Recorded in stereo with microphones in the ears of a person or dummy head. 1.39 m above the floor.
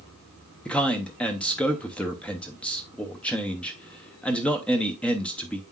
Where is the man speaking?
5° left (ahead or behind), 0.7 m.